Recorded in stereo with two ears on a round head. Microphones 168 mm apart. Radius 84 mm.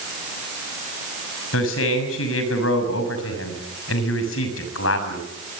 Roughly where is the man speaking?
Left.